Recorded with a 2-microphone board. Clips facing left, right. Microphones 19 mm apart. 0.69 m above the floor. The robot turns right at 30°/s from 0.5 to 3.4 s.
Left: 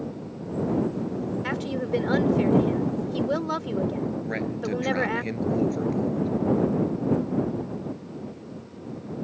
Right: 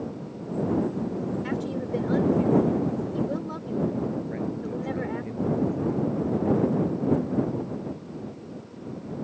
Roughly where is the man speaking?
Left.